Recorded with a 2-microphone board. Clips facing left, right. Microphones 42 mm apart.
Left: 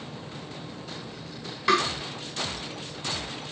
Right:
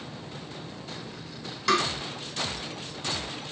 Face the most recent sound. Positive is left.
turn(degrees=20)  # may be behind; listen again after turning